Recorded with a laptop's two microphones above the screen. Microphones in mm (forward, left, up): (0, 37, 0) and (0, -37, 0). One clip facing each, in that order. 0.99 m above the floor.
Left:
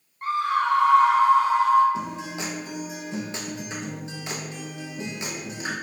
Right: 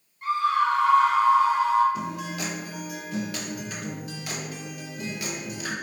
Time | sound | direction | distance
0.2 | a scream | 45° left (ahead or behind) | 1.1 m
1.9 | a guitar | 25° left (ahead or behind) | 0.8 m